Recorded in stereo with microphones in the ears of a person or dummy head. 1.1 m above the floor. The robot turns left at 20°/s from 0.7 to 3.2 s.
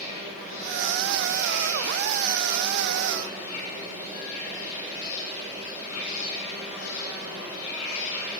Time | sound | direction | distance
0.0 | an insect | 130° left | 2.5 m